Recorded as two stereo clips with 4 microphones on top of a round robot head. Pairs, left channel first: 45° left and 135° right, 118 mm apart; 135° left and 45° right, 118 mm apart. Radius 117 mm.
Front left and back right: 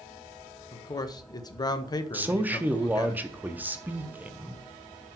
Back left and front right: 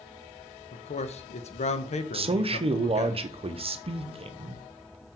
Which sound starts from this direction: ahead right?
A man speaking, at 2.1 s.